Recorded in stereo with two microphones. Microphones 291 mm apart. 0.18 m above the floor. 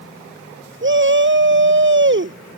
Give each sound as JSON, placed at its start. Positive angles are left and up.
{"t": 0.8, "sound": "a shout", "side_deg": -40}